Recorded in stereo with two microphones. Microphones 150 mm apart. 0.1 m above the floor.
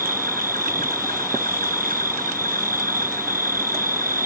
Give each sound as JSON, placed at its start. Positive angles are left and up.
{"t": 0.0, "sound": "an insect", "side_deg": -65}